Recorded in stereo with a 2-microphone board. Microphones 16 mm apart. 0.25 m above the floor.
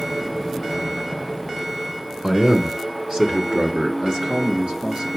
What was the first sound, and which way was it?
A man speaking, 50° right (ahead or behind).